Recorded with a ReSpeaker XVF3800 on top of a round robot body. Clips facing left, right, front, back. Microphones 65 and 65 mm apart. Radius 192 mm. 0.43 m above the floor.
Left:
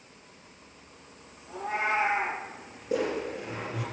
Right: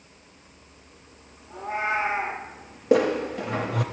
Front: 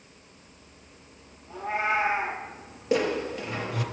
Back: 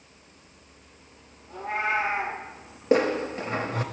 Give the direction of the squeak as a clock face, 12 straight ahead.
4 o'clock.